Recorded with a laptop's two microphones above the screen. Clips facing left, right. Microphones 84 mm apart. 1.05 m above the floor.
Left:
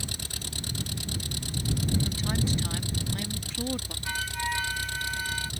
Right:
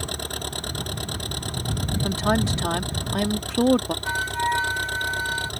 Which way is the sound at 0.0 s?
55° right (ahead or behind).